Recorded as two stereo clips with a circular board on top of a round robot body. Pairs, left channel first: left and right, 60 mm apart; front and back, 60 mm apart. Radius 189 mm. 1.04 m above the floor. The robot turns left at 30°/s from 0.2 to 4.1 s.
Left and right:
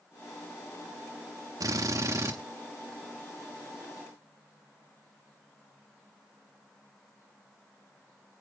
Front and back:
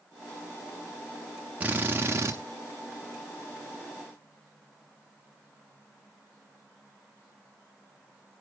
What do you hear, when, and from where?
1.6 s a drill: 110° right, 0.8 m; by 2.4 s 135° right, 0.8 m